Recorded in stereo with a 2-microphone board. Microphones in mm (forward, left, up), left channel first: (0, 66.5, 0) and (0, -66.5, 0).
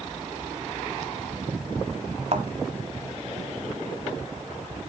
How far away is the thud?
About 1.5 m.